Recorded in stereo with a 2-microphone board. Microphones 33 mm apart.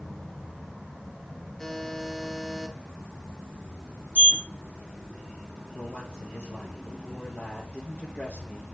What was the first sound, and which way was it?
A buzzer, 15° left (ahead or behind).